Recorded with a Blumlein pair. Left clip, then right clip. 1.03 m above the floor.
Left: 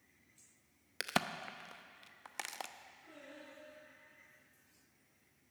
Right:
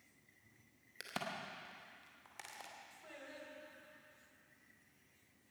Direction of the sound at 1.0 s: 30° left.